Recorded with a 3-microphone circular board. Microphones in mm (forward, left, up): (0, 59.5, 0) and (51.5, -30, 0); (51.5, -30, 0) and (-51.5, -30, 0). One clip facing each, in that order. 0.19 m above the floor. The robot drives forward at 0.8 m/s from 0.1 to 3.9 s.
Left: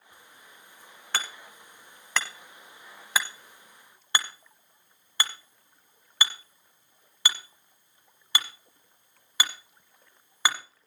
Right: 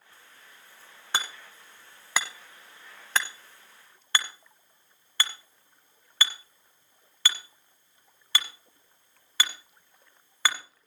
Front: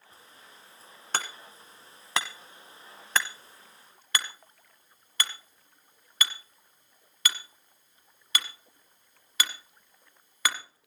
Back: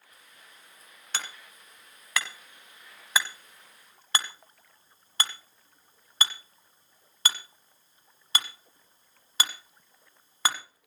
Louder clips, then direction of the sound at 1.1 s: Right 1 dB, front 5 dB; 5° left.